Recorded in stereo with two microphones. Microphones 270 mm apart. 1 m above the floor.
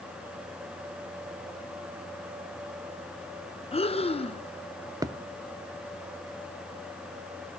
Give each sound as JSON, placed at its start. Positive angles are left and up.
{"t": 3.7, "sound": "breathing", "side_deg": 20, "distance_m": 0.7}
{"t": 5.0, "sound": "a thud", "side_deg": -15, "distance_m": 0.5}